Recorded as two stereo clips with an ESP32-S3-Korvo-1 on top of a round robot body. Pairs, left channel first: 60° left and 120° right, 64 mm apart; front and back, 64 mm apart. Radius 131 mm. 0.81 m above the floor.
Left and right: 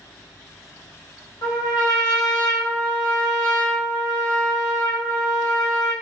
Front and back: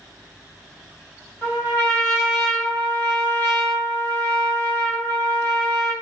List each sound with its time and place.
1.4 s a trumpet: 75° left, 1.3 m